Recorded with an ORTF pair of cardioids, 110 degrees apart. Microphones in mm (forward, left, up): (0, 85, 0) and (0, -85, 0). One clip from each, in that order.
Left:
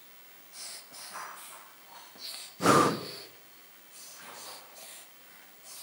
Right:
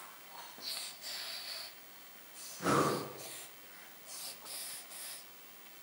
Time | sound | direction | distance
2.6 | breathing | 60° left | 0.7 m